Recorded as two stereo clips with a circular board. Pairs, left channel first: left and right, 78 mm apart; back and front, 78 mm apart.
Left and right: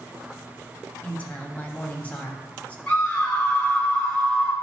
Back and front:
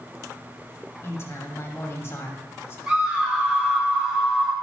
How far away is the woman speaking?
About 1.4 m.